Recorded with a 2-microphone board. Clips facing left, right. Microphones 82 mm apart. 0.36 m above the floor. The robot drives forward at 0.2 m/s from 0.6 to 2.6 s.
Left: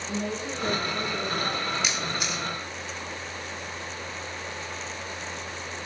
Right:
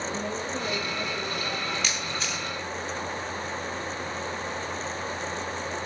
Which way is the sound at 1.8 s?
20° left (ahead or behind).